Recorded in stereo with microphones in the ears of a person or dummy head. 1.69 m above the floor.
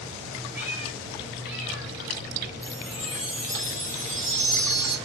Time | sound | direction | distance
0.5 | a cat meowing | 10° right (ahead or behind) | 2.5 m
2.6 | a chime | centre (ahead or behind) | 4 m